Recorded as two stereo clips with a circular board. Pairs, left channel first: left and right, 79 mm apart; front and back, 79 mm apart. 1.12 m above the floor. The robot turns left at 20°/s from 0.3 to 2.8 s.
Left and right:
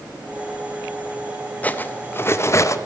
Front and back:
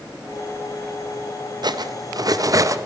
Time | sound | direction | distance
1.6 | cutlery clinking | 160° left | 0.5 m